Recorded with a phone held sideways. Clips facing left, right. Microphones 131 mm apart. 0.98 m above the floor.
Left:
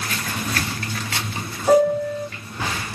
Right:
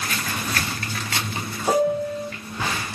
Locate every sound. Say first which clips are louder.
1.7 s a piano: left 5 dB; 5° right (ahead or behind), 1.4 m